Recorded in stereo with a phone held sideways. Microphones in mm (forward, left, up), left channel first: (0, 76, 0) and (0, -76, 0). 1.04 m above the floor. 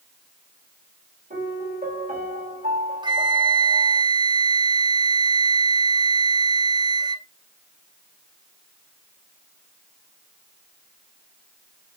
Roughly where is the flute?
Right.